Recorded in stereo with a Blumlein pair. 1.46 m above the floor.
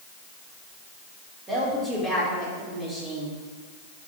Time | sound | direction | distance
1.5 | a woman speaking | 10° right | 3.5 m